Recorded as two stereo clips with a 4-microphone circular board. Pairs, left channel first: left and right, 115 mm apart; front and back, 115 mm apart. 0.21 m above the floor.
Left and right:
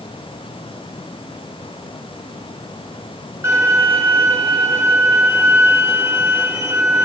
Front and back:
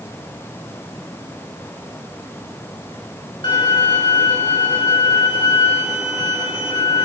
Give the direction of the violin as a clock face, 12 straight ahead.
1 o'clock.